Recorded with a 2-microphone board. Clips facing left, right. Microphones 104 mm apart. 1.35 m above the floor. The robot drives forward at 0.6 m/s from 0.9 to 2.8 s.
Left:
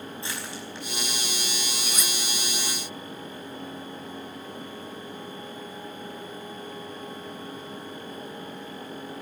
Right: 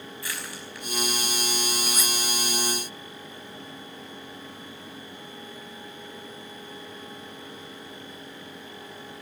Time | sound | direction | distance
0.2 | crushing | 25° left (ahead or behind) | 5 m
1.9 | cutlery clinking | 5° right (ahead or behind) | 1.1 m